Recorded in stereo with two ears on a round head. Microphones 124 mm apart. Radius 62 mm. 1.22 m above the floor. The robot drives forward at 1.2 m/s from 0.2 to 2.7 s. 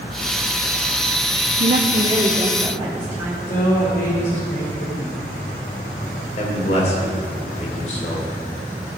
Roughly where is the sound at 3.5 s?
Left.